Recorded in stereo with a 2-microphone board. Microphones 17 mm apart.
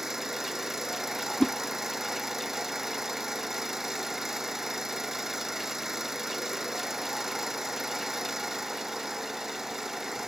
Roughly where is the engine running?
Right.